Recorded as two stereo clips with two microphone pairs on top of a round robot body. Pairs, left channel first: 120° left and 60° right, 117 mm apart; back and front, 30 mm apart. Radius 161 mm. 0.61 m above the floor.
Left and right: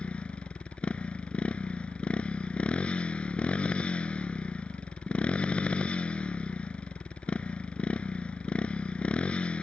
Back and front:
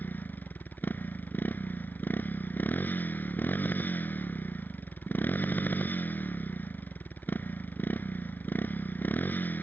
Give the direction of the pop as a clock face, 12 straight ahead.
I don't hear a pop.